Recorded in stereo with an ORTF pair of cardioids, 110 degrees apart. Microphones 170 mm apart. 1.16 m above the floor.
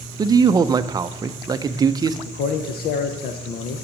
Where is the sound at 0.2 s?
25° right, 0.5 m.